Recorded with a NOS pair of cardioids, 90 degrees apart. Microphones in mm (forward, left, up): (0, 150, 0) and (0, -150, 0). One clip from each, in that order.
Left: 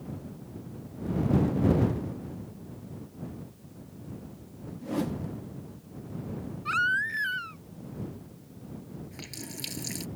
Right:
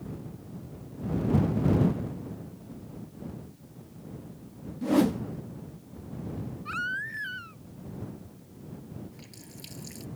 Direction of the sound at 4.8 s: 45° right.